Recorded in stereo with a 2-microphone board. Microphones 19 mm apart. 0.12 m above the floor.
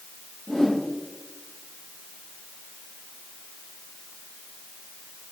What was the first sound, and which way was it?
A whoosh, 25° left (ahead or behind).